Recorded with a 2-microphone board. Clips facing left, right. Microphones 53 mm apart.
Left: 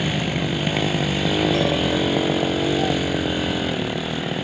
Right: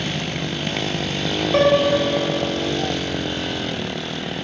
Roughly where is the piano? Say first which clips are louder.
Right 5 dB; right.